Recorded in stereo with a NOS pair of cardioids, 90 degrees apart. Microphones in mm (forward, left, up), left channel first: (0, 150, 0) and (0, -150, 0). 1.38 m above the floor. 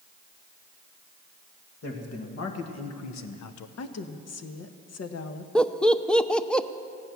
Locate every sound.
1.8 s a man speaking: 50° left, 2.5 m; by 3.7 s 80° left, 0.8 m
3.8 s a woman speaking: 55° left, 1.3 m
5.5 s laughter: 5° left, 0.7 m